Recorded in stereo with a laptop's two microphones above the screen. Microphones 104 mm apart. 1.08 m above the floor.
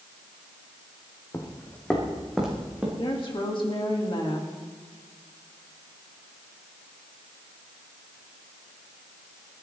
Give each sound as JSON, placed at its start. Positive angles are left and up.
{"t": 1.3, "sound": "footsteps", "side_deg": 30, "distance_m": 1.8}
{"t": 3.0, "sound": "a woman speaking", "side_deg": 50, "distance_m": 2.0}